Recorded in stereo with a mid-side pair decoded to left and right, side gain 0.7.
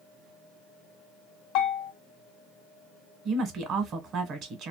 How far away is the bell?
About 0.8 m.